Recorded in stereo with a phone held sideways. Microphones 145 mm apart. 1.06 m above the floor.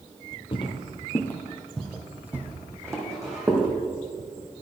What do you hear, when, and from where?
0.5 s footsteps: 40° left (ahead or behind), 1.4 m; by 3.7 s 25° right (ahead or behind), 3 m